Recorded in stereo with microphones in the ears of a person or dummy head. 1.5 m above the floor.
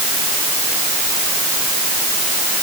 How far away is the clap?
No clap in this recording.